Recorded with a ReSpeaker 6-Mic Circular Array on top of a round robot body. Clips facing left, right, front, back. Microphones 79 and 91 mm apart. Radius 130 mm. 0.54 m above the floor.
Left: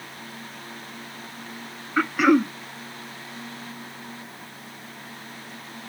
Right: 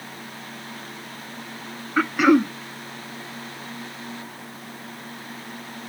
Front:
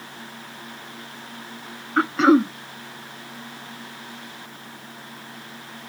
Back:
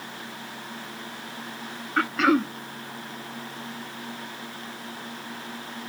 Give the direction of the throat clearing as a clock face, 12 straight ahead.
12 o'clock.